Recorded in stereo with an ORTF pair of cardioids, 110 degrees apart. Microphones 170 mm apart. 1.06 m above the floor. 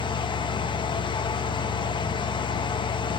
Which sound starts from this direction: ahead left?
A fan, at 0.0 s.